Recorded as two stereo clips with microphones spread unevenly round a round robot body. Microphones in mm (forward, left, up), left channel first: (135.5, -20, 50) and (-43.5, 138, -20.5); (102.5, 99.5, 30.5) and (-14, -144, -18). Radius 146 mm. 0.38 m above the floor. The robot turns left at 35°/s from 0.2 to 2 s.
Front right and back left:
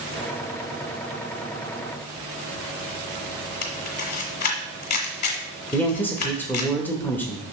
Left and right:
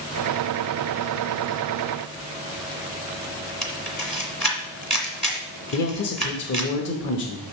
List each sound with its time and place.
3.6 s a camera shutter: 25° right, 1.6 m
5.7 s a man speaking: 65° left, 0.9 m